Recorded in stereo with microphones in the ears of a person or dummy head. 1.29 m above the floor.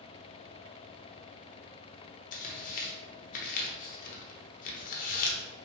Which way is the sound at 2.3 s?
40° left (ahead or behind).